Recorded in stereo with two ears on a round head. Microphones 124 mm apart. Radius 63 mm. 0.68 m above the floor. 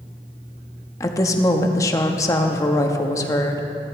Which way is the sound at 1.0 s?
25° left (ahead or behind).